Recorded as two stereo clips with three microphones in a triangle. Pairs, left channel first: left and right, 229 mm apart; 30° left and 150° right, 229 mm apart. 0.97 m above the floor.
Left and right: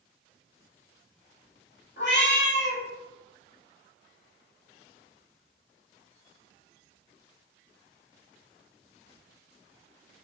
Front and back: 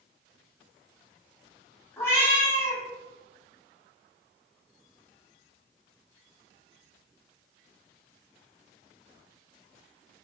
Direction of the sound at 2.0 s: 105° left.